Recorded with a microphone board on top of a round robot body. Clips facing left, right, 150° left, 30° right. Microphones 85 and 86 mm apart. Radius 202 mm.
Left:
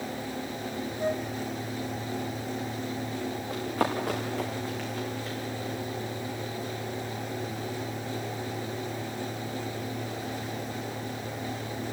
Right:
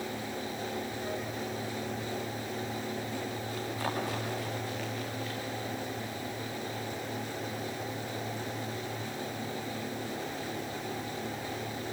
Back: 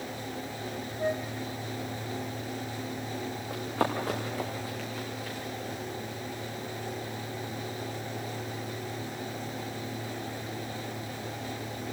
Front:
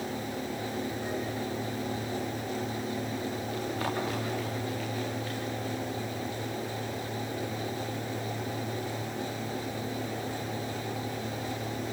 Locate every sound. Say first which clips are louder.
1.0 s a flute: left 6 dB, back 3 dB; 130° left, 1.5 m
3.5 s running footsteps: left 7 dB, back 5 dB; 125° left, 4.5 m; by 5.4 s 145° left, 4.5 m